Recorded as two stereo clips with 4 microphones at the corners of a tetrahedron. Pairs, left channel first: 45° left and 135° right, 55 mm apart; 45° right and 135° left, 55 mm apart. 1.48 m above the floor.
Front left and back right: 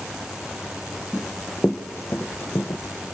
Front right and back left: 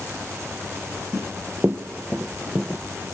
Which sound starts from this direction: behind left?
Running footsteps, at 1.1 s.